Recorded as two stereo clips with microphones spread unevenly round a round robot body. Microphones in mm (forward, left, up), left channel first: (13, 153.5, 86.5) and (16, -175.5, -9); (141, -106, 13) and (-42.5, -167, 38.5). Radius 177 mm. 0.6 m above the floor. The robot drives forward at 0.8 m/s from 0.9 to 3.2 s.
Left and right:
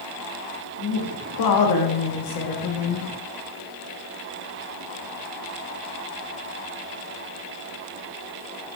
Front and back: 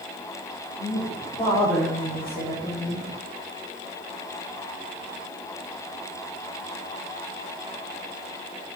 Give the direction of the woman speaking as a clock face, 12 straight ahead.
10 o'clock.